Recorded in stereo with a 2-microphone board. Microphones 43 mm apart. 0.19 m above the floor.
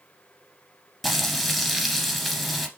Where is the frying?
Centre (ahead or behind), 1.4 m.